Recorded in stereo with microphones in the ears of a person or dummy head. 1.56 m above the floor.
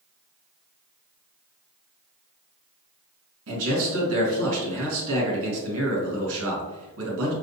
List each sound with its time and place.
3.5 s a man speaking: 80° right, 1.9 m